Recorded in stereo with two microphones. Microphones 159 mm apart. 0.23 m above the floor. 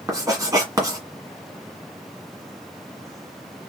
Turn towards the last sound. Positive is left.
turn(degrees=-20)  # may be behind; listen again after turning